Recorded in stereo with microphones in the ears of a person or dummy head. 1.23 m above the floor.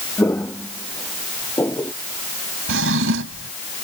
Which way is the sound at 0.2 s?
15° left (ahead or behind).